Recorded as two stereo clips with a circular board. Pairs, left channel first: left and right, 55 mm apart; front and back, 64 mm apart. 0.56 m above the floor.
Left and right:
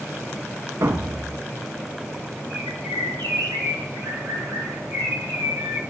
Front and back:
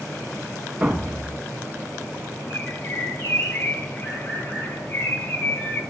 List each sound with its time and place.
0.8 s a thud: 115° right, 1.1 m
2.5 s a bird: 70° right, 10 m